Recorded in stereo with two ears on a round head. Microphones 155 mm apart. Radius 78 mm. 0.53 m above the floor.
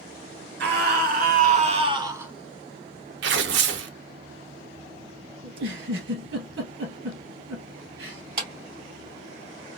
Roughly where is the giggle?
Right.